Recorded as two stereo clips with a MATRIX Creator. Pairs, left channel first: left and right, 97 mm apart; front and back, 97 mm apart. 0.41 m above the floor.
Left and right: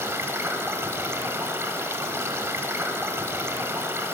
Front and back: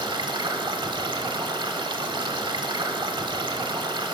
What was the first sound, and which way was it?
Running water, 150° right.